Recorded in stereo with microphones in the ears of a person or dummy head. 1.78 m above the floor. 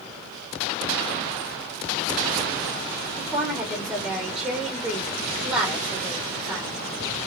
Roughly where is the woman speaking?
Centre.